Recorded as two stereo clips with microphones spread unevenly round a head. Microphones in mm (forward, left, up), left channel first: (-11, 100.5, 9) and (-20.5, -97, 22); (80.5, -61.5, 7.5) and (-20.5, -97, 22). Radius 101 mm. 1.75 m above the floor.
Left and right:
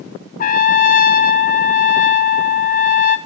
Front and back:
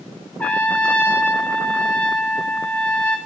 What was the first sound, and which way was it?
A trumpet, 105° left.